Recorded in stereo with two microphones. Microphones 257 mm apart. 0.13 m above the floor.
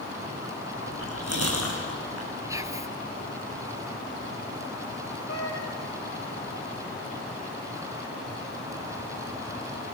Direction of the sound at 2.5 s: 10° right (ahead or behind).